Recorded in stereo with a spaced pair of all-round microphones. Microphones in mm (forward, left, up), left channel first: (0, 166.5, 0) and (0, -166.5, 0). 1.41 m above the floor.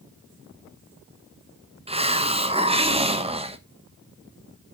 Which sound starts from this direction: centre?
A hiss, at 1.9 s.